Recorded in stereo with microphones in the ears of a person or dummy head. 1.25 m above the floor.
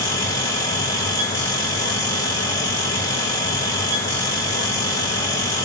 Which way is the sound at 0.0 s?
15° left (ahead or behind).